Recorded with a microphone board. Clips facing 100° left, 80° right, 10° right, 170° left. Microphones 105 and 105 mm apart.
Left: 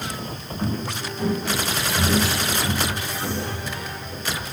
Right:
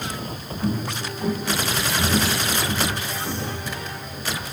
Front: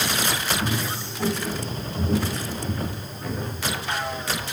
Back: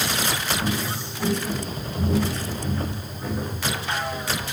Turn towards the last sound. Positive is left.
turn(degrees=95)